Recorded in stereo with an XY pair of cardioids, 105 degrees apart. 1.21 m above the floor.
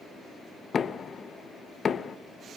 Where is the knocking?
50° left, 0.8 m.